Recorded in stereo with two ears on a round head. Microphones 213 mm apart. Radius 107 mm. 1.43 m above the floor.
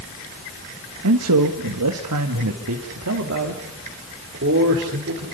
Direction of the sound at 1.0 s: 75° right (ahead or behind).